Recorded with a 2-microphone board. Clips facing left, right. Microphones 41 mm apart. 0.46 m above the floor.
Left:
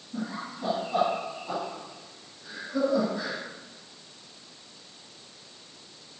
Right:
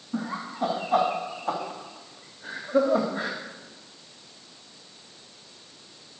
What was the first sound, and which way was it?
Laughter, 75° right (ahead or behind).